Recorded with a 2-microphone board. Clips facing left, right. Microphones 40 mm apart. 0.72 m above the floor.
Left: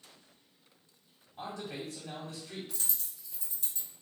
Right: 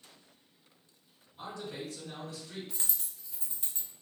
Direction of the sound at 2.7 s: 35° right (ahead or behind).